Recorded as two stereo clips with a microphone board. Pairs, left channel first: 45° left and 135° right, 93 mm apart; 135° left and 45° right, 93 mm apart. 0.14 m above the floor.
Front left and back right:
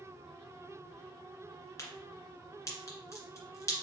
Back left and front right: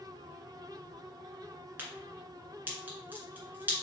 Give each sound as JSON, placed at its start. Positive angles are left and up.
{"t": 1.8, "sound": "a crack", "azimuth_deg": 15, "distance_m": 1.7}